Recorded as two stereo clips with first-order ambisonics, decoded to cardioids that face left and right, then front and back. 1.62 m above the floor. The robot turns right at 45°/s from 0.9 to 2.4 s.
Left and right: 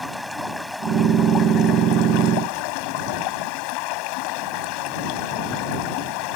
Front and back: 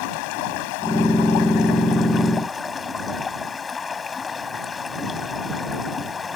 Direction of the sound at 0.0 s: 5° left.